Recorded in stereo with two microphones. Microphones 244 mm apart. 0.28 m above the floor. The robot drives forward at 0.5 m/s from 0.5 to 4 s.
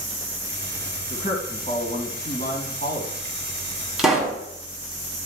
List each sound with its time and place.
1.1 s a man speaking: 30° left (ahead or behind), 2.5 m; by 3.1 s 40° left (ahead or behind), 1.9 m
4.0 s a pop: centre (ahead or behind), 1.5 m